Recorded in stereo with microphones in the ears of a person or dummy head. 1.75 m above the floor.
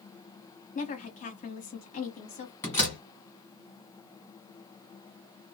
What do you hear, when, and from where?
0.8 s a woman speaking: 45° left (ahead or behind), 1.0 m
2.6 s a door slam: 20° left (ahead or behind), 1.4 m